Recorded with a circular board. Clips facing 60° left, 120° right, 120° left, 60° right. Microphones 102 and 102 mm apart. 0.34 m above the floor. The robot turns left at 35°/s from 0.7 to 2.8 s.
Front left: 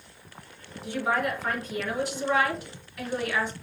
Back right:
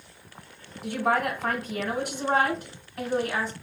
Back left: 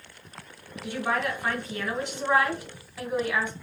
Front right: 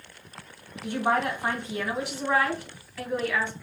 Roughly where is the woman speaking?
Right.